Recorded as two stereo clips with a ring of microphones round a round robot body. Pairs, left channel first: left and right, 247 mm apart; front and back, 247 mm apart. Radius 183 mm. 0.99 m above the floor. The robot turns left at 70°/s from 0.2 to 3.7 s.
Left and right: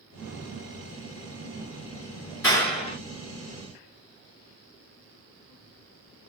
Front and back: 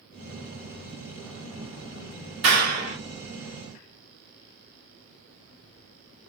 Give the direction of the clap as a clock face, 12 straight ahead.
6 o'clock.